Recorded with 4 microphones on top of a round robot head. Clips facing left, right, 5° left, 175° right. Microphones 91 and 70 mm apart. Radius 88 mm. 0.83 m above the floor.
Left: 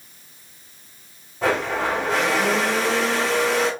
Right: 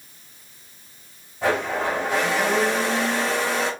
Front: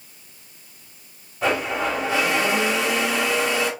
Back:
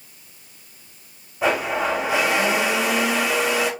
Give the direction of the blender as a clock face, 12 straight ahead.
8 o'clock.